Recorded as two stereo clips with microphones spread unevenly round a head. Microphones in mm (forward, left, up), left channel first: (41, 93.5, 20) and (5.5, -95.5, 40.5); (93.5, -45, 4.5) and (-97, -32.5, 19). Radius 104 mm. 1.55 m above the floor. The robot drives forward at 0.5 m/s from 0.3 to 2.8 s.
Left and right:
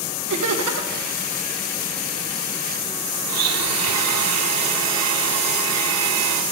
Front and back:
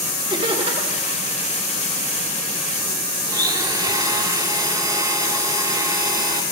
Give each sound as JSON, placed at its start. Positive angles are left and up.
{"t": 0.3, "sound": "laughter", "azimuth_deg": -115, "distance_m": 2.0}
{"t": 3.3, "sound": "a blender", "azimuth_deg": -115, "distance_m": 2.5}